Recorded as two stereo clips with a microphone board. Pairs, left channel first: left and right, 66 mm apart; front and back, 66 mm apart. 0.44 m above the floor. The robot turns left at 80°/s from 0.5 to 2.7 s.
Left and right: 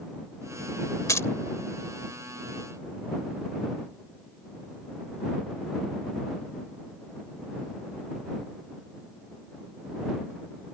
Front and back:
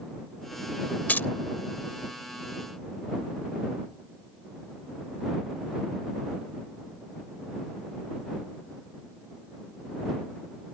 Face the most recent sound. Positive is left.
turn(degrees=-70)